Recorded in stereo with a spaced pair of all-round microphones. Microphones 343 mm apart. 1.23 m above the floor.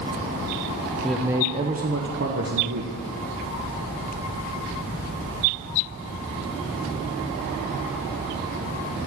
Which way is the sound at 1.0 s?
Centre (ahead or behind).